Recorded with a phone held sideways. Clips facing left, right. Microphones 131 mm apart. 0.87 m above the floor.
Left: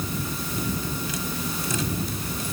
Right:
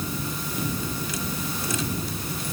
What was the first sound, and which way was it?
Only background noise.